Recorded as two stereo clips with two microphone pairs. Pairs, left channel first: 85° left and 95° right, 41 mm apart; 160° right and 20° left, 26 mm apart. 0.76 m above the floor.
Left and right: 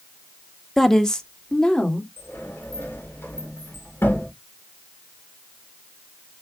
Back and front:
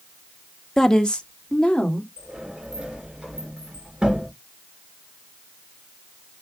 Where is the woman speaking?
165° left, 0.6 m; by 2.1 s 155° left, 1.9 m.